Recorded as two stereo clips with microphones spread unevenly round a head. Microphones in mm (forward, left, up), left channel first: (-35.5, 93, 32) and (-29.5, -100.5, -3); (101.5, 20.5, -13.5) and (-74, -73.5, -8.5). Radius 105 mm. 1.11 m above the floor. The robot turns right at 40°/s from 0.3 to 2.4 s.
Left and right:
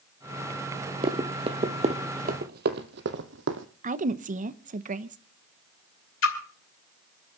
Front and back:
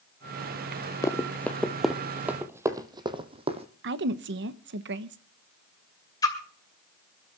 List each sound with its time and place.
1.0 s running footsteps: 35° right, 1.2 m; by 3.7 s 100° right, 1.8 m
3.8 s a woman speaking: 125° right, 1.0 m
6.2 s a splash: 100° left, 2.5 m